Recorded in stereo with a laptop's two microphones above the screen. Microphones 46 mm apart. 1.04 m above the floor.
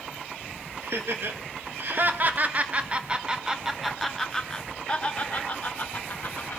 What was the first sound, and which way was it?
Laughter, 65° right (ahead or behind).